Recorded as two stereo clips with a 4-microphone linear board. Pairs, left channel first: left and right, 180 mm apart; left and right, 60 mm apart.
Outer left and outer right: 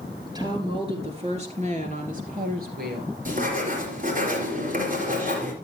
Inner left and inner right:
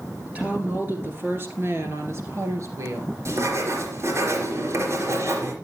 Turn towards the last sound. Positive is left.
turn(degrees=-50)  # may be behind; listen again after turning